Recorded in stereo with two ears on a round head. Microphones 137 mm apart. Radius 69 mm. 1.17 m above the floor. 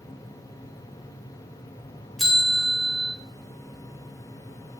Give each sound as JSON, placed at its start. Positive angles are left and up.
{"t": 2.2, "sound": "a bell", "side_deg": 0, "distance_m": 0.6}